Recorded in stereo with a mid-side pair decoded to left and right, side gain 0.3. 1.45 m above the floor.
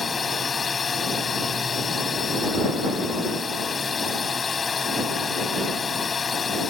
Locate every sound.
0.0 s a drone: 55° left